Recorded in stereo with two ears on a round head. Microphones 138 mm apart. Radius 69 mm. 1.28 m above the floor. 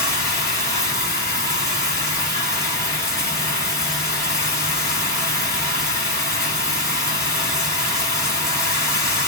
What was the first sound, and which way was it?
Running water, 20° left (ahead or behind).